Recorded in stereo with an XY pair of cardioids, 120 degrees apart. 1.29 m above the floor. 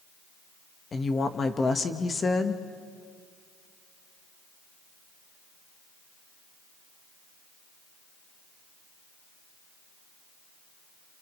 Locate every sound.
0.9 s a woman speaking: 30° left, 1.3 m